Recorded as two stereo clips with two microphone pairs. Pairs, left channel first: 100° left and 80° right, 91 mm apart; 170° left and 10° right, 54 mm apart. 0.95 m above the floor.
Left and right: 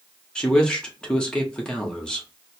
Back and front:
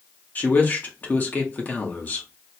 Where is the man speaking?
170° left, 1.0 m.